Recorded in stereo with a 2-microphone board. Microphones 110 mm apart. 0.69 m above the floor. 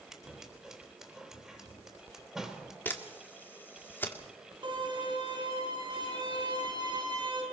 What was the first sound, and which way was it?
Scissors, 5° right (ahead or behind).